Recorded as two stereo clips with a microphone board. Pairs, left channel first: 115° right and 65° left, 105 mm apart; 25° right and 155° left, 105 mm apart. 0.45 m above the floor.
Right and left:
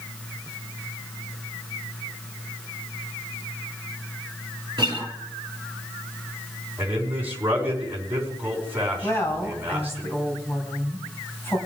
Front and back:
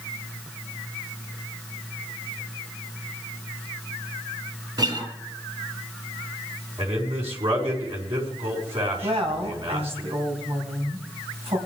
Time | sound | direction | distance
4.8 | a guitar | 115° left | 3.5 m
6.8 | a man speaking | 140° left | 4.5 m
9.0 | a woman speaking | straight behind | 3.5 m